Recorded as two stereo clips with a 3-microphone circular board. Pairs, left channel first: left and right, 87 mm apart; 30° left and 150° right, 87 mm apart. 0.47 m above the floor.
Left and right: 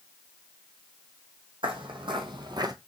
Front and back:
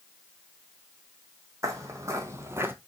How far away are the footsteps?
About 1.4 m.